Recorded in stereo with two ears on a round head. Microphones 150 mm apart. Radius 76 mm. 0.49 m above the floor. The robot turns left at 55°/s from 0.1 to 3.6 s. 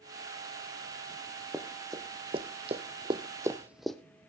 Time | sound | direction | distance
1.5 | running footsteps | 5° right (ahead or behind) | 1.9 m